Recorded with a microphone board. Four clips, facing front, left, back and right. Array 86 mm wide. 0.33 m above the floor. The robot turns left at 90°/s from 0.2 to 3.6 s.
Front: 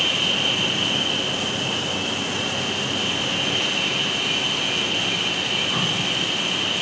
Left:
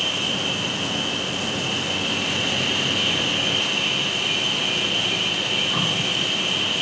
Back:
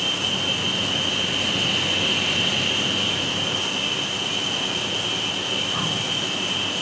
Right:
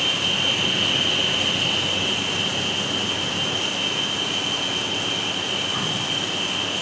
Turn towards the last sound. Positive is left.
turn(degrees=30)